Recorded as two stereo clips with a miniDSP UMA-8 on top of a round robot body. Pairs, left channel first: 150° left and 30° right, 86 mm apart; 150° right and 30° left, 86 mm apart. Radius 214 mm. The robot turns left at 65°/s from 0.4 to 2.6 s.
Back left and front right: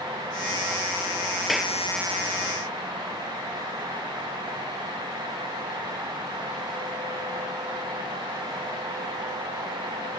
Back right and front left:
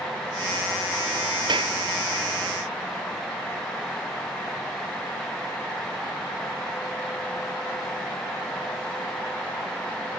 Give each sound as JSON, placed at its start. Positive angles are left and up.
{"t": 1.5, "sound": "a clap", "azimuth_deg": 60}